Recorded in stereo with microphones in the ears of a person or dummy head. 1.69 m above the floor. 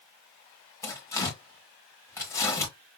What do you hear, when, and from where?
0.8 s tearing paper: 15° left (ahead or behind), 1.7 m